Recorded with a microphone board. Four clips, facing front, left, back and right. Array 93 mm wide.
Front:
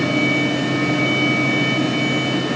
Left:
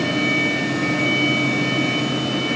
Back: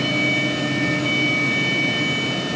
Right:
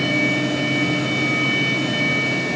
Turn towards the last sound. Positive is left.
No sound to turn to.